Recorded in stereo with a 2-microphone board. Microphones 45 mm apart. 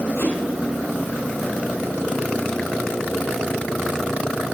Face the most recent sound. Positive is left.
turn(degrees=65)  # may be behind; listen again after turning